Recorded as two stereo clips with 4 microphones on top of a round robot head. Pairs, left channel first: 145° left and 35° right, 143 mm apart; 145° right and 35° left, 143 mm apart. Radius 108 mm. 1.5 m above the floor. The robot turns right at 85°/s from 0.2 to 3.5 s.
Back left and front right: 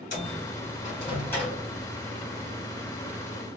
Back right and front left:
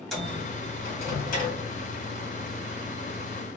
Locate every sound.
0.1 s a microwave: 125° left, 2.5 m; by 1.6 s 120° right, 2.5 m